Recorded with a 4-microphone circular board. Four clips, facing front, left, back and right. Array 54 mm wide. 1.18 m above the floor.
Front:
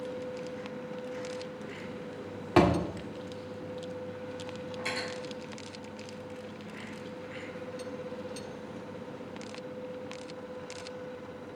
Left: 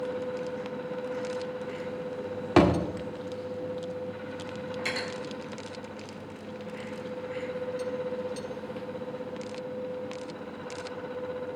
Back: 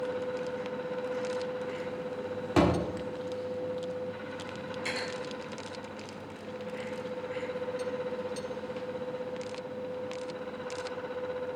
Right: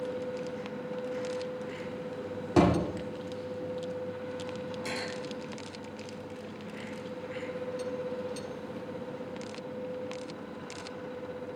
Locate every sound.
2.6 s a thud: 70° left, 1.5 m
4.8 s cutlery clinking: 85° left, 4 m